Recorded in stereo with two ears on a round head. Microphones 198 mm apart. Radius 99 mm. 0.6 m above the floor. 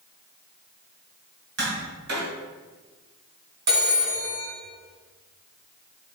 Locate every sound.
1.6 s tapping: 55° right (ahead or behind), 2.5 m
3.7 s a phone ringing: 80° right, 3 m